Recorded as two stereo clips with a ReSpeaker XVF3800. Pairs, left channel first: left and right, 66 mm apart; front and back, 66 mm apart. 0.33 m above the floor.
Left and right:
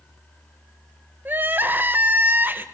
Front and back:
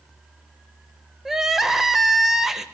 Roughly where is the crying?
Right.